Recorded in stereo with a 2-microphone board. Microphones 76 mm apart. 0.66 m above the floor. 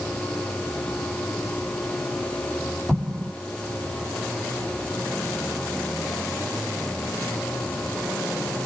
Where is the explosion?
5° right (ahead or behind), 0.9 m.